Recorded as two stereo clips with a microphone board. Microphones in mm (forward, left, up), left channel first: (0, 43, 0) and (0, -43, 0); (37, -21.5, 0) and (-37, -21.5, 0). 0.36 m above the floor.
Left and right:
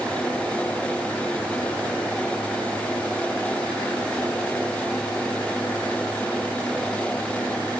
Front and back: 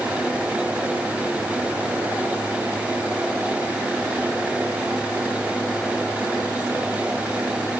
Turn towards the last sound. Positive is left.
No sound to turn to.